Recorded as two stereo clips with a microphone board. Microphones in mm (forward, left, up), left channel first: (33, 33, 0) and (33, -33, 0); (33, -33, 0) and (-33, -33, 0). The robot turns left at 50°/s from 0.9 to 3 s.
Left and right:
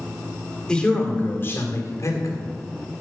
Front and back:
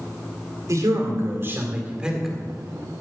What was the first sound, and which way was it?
A man speaking, 165° left.